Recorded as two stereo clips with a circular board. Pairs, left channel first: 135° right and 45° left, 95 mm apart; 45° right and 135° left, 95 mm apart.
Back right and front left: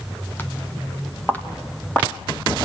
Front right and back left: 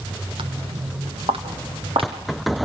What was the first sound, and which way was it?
Footsteps, 155° left.